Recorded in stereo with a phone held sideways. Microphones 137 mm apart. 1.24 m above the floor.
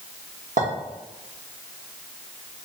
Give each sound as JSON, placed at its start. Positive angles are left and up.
{"t": 0.6, "sound": "a clink", "side_deg": -85, "distance_m": 1.1}